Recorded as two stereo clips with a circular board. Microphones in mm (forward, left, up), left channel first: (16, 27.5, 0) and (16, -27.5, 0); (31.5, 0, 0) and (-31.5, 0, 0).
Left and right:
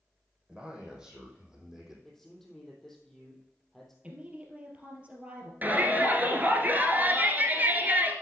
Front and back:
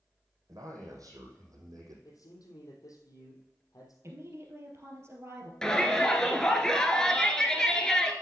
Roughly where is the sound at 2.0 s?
Ahead.